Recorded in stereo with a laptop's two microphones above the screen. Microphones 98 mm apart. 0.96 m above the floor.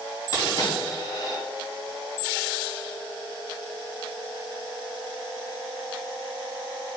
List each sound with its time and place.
0.3 s a dropped coin: 45° left (ahead or behind), 3 m